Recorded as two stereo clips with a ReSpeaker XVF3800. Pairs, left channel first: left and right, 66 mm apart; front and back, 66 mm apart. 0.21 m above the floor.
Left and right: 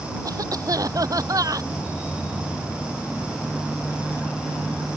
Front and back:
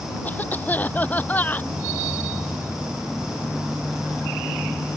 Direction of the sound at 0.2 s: 65° right.